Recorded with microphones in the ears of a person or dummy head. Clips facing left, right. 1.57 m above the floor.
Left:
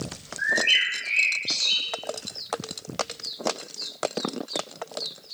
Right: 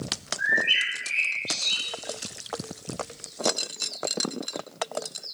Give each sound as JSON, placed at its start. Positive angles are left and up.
{"t": 0.4, "sound": "a bird", "side_deg": 85, "distance_m": 1.1}